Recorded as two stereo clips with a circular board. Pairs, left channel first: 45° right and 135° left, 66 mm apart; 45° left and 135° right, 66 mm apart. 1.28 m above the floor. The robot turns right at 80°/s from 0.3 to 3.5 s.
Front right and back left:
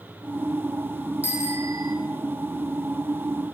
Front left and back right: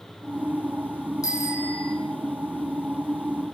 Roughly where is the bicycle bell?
Left.